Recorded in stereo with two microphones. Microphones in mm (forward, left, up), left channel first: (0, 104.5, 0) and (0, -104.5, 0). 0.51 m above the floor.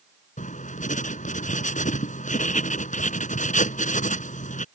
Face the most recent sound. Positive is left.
turn(degrees=35)  # may be behind; listen again after turning